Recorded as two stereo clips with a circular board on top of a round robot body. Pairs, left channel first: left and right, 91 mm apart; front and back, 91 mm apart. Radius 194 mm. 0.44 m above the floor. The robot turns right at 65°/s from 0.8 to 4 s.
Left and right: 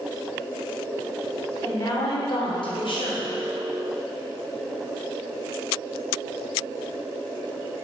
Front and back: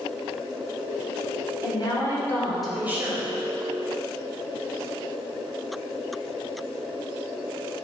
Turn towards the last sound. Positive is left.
turn(degrees=180)